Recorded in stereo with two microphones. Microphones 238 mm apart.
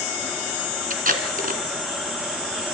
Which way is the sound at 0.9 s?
40° right (ahead or behind).